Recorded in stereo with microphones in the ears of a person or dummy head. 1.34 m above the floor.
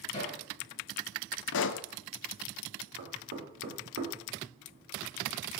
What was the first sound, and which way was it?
Hammering, 25° left (ahead or behind).